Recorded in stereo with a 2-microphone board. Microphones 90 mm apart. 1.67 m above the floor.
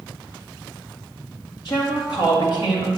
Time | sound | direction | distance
1.6 | a woman speaking | 55° left (ahead or behind) | 2 m